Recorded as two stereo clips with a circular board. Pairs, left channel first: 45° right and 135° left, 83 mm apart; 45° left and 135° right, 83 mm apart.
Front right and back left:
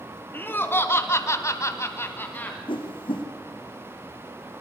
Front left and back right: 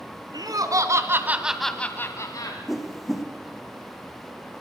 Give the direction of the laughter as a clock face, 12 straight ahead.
4 o'clock.